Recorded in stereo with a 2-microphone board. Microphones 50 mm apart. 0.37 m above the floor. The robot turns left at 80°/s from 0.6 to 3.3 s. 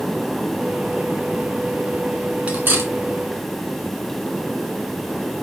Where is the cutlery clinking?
25° right (ahead or behind), 2 m; by 2.9 s 60° right (ahead or behind), 2 m.